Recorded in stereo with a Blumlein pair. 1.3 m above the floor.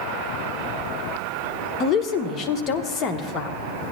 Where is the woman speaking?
30° left, 1.1 m.